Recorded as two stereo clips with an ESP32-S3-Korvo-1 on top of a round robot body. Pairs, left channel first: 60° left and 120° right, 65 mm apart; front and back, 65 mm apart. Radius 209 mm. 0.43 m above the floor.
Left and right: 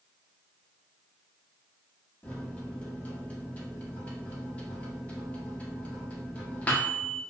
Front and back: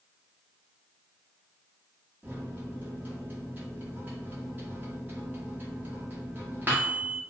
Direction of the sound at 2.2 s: 125° left.